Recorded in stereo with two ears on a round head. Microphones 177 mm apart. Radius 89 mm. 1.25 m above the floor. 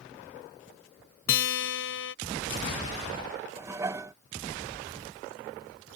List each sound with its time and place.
1.3 s a guitar: 75° left (ahead or behind)
3.6 s dishes clattering: 15° right (ahead or behind)